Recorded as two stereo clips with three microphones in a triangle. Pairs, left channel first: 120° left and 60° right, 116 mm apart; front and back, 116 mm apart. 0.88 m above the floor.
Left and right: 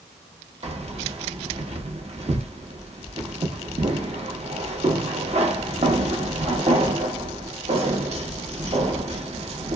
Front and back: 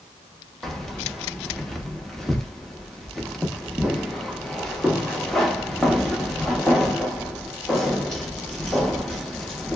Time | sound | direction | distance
0.6 | keys jangling | 85° right | 0.7 m